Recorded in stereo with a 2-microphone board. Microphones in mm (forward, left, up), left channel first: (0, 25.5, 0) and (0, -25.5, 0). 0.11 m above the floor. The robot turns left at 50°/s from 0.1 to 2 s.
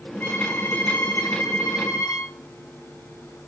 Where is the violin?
140° left, 8.5 m; by 2.3 s 50° left, 8.5 m.